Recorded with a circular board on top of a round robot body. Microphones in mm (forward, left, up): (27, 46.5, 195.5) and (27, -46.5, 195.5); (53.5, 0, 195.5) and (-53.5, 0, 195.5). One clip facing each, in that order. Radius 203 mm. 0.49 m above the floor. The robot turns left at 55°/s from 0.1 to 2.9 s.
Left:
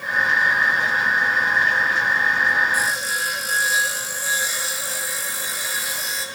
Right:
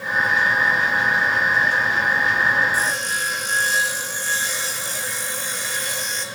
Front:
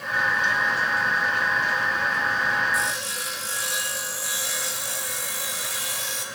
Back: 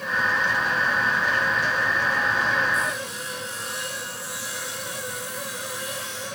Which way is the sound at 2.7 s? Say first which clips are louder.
Even, even; 15° left.